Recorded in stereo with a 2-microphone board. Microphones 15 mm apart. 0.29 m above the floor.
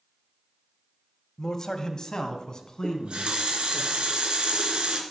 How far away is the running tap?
About 2.5 m.